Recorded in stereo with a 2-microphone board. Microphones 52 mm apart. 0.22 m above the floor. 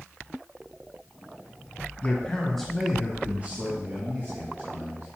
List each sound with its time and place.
2.0 s a man speaking: 25° left (ahead or behind), 1.8 m; by 5.1 s 60° right (ahead or behind), 3 m